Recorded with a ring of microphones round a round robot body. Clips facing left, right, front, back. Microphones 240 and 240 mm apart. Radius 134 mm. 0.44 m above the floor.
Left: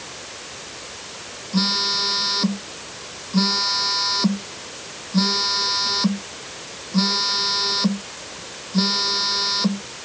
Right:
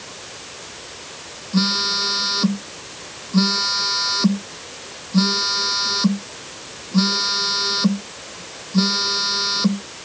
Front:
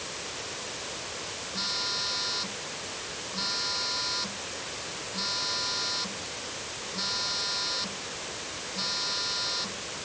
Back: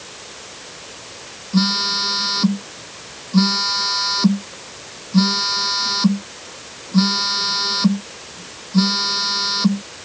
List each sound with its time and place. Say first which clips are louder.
1.5 s a phone buzzing: right 3 dB, back 26 dB; 170° right